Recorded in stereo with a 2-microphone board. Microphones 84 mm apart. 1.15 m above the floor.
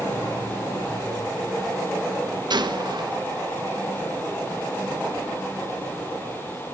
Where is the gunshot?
60° right (ahead or behind), 1.3 m.